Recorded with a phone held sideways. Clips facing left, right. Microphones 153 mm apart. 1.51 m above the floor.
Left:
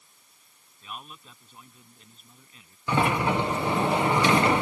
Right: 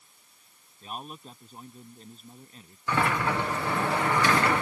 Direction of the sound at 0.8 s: 35° right (ahead or behind).